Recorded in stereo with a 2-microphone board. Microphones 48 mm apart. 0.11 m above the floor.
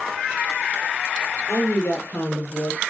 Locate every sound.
1.5 s a woman speaking: 55° left (ahead or behind), 3 m; by 2.8 s 45° left (ahead or behind), 1.9 m